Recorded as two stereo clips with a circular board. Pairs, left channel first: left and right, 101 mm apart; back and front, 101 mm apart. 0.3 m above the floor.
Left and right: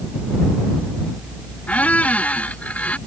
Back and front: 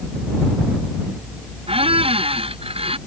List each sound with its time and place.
1.7 s a squeak: 15° left